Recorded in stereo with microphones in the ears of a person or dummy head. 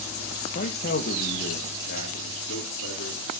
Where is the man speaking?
45° left (ahead or behind), 1.1 m; by 3.3 s 75° left (ahead or behind), 3.5 m.